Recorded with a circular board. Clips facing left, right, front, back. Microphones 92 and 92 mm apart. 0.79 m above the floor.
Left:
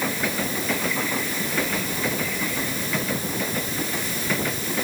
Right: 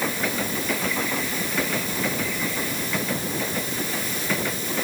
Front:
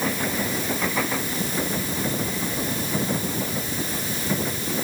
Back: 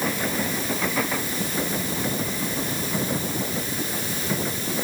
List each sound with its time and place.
Only background noise.